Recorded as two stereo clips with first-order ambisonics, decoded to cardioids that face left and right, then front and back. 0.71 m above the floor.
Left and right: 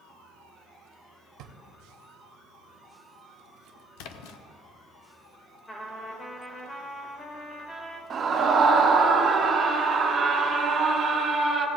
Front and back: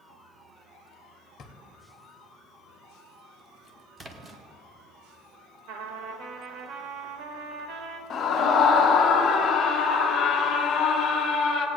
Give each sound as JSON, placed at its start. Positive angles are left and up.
{"t": 1.4, "sound": "a drawer", "azimuth_deg": -60, "distance_m": 1.0}
{"t": 4.0, "sound": "a splash", "azimuth_deg": 105, "distance_m": 0.8}
{"t": 5.7, "sound": "a trumpet", "azimuth_deg": 165, "distance_m": 1.2}
{"t": 8.1, "sound": "a scream", "azimuth_deg": -40, "distance_m": 1.0}